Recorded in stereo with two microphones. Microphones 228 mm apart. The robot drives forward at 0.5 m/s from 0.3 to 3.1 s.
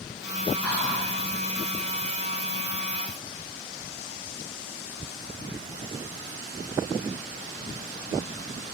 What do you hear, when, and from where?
0.6 s whispering: 5° left (ahead or behind), 1.4 m